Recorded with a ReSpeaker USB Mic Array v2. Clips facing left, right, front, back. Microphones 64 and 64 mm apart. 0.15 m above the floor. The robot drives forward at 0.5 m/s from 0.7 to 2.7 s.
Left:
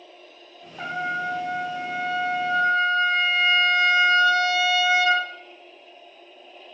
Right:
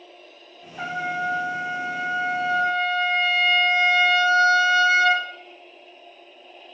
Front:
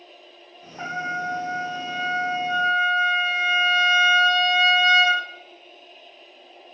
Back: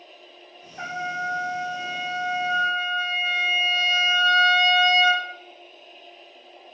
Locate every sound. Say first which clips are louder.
0.8 s a trumpet: right 1 dB, front 1 dB; 125° right, 1.3 m; by 5.2 s 150° right, 1.9 m